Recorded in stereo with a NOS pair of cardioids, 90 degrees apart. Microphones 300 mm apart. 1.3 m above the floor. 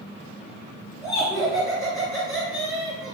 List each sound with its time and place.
1.0 s laughter: 10° left, 1.4 m